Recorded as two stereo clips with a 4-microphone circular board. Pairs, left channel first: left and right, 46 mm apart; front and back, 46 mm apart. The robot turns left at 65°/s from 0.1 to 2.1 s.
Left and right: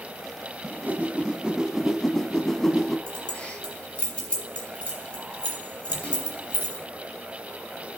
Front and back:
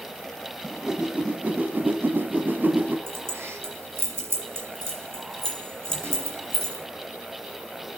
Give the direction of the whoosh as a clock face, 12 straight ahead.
3 o'clock.